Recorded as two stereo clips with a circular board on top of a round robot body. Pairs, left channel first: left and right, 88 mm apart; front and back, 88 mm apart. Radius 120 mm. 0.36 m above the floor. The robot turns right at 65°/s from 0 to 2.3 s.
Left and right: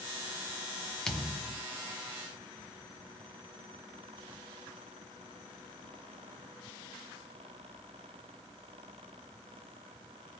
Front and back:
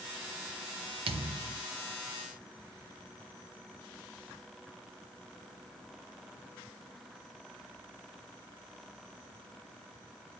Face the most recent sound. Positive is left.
turn(degrees=-105)